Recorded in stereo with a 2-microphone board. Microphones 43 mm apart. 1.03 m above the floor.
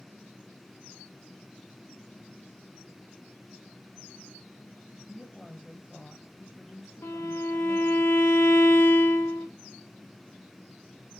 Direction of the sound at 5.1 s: Centre (ahead or behind).